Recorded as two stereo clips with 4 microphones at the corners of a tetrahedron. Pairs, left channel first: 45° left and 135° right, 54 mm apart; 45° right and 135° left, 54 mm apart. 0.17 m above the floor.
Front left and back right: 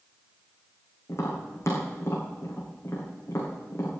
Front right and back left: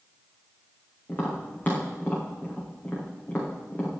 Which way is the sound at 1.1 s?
15° left.